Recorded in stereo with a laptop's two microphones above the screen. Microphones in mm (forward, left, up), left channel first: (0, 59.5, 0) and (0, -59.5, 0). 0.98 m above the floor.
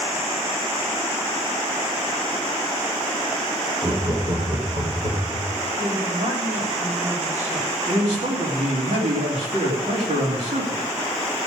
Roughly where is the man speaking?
Right.